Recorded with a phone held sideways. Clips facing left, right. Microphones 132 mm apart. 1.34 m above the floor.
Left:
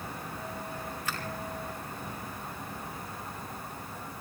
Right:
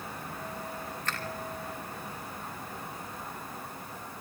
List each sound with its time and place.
1.1 s a finger snap: 10° left (ahead or behind), 3.5 m